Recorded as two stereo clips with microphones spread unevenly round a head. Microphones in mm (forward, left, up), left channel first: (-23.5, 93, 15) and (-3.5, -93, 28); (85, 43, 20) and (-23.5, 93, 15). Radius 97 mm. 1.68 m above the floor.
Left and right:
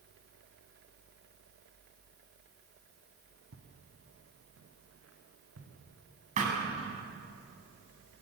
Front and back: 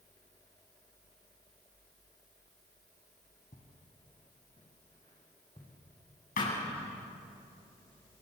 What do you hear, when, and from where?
3.5 s footsteps: 70° right, 4.5 m; by 5.7 s 90° right, 6.5 m
6.4 s a thud: 30° right, 8 m